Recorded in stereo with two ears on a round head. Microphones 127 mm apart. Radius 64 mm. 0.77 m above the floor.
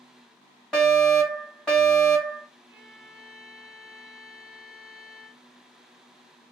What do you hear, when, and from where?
0.7 s a fire alarm: 5° left (ahead or behind), 1.7 m
2.7 s a violin: 10° right (ahead or behind), 1.0 m